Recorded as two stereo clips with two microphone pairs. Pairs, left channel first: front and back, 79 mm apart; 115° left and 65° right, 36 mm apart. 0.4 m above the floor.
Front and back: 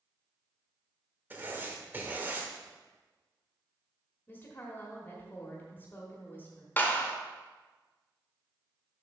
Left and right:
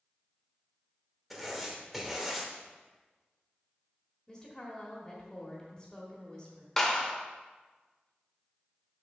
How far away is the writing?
About 1.1 m.